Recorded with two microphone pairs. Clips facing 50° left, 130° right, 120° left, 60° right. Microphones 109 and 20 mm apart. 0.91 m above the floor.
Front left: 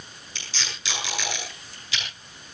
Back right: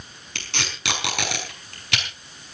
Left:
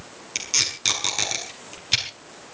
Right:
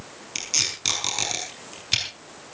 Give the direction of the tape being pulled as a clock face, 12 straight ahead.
5 o'clock.